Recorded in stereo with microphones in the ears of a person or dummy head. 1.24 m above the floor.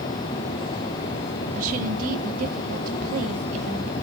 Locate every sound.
1.6 s a woman speaking: 45° right (ahead or behind), 2.5 m